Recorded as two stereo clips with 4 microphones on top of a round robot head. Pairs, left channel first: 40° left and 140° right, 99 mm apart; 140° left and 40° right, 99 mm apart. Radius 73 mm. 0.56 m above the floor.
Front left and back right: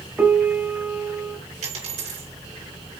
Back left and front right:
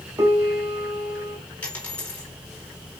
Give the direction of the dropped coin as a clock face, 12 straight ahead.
5 o'clock.